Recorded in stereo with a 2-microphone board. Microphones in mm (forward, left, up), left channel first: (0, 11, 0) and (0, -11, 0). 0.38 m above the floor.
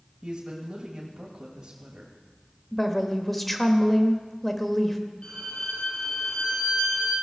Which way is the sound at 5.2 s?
50° left (ahead or behind).